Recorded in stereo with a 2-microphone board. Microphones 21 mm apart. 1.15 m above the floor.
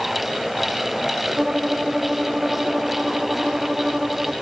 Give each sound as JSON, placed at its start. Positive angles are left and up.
{"t": 1.4, "sound": "a violin", "side_deg": -45}